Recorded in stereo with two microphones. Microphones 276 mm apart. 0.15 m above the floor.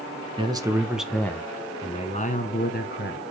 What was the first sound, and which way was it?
A man speaking, 20° right (ahead or behind).